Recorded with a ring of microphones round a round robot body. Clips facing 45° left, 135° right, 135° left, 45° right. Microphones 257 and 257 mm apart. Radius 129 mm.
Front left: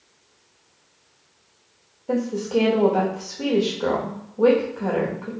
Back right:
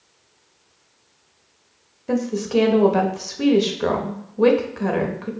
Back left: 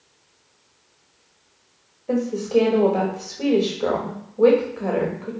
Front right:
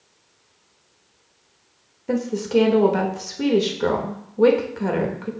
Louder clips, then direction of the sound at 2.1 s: Back right 1 dB, back left 1 dB; 95° right.